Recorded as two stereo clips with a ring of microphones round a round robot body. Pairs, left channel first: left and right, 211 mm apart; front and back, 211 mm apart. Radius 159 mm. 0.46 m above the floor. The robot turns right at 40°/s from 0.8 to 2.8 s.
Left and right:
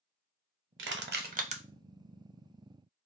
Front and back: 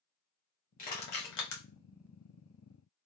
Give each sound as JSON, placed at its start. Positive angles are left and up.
{"t": 0.8, "sound": "crushing", "azimuth_deg": -60, "distance_m": 0.8}